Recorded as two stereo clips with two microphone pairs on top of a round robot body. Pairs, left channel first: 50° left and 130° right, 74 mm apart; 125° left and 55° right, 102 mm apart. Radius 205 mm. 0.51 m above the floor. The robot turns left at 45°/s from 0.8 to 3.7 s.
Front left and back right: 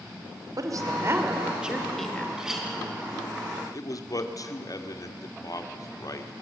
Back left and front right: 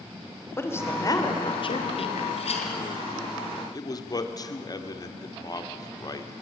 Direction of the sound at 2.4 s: 150° left.